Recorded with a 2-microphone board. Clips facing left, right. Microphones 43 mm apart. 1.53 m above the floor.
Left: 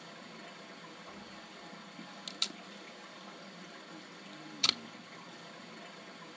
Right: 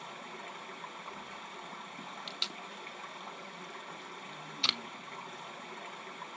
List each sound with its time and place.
0.0 s running water: 55° right (ahead or behind), 2.5 m
2.3 s tape being pulled: 5° right (ahead or behind), 0.7 m